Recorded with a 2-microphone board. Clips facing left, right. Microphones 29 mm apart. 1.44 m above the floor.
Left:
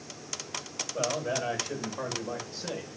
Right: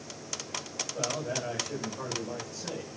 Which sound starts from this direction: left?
A man speaking, at 0.9 s.